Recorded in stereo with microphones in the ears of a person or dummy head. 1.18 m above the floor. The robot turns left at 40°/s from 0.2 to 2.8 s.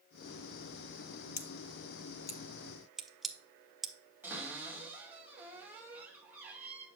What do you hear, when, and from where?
1.4 s scissors: 40° left (ahead or behind), 0.8 m; by 3.9 s 5° left (ahead or behind), 0.8 m
4.2 s a cupboard door: 10° right (ahead or behind), 2.5 m